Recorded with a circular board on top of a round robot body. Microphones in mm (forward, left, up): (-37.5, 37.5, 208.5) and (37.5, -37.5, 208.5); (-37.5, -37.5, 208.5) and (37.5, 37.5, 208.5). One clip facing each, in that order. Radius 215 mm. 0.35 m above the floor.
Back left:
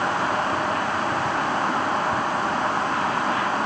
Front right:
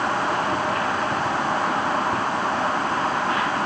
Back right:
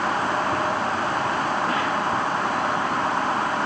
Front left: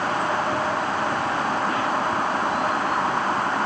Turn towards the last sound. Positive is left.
No sound to turn to.